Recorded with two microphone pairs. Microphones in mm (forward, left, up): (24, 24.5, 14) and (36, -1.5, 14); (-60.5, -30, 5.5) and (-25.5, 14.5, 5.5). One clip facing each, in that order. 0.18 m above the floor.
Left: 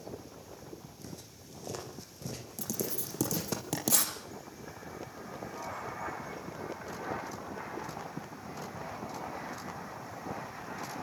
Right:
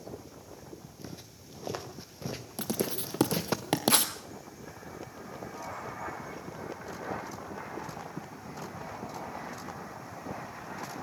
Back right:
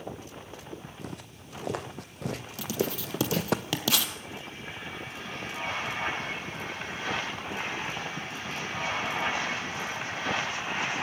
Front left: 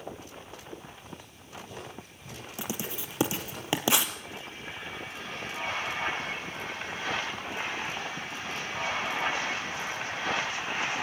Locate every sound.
1.0 s footsteps: 125° right, 4.5 m; by 3.6 s 120° right, 2.5 m
2.6 s writing: 15° right, 2.5 m